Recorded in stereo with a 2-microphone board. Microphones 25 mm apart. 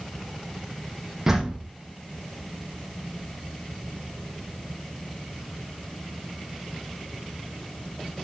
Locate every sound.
1.3 s a door slam: 15° right (ahead or behind), 4.5 m